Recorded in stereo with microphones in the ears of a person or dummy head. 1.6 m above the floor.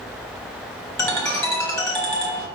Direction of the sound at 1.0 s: 20° left (ahead or behind).